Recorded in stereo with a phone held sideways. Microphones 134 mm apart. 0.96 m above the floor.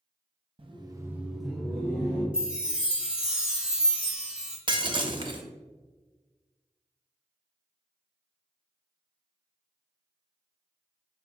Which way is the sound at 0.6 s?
45° right (ahead or behind).